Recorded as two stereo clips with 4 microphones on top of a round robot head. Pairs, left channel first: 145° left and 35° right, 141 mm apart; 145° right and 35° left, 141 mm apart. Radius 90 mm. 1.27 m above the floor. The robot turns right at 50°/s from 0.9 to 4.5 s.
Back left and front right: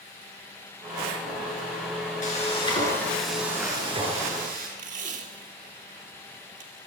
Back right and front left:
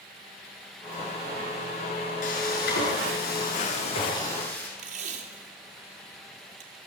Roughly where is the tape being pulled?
Ahead.